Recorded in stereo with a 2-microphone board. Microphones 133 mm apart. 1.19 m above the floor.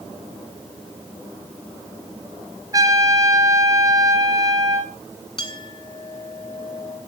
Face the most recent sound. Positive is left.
turn(degrees=40)  # may be behind; listen again after turning